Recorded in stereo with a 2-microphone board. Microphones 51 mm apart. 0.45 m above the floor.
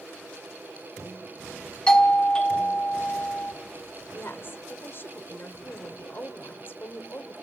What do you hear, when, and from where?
1.9 s a doorbell: 20° left (ahead or behind), 1.4 m
4.1 s a woman speaking: 50° left (ahead or behind), 1.7 m